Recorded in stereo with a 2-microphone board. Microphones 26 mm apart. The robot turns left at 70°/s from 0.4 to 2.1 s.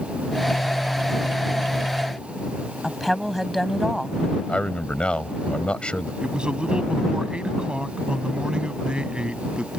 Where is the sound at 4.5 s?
45° left (ahead or behind).